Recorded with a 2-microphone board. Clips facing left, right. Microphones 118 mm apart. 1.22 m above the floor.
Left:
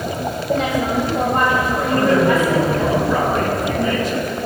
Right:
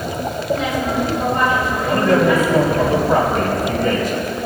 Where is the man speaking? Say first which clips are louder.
Right 1 dB; 60° right (ahead or behind), 3 m.